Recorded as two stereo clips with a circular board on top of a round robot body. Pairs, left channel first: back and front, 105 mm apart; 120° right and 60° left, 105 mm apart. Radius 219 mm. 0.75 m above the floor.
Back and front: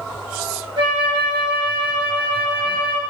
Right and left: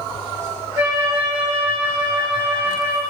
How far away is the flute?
About 1.1 m.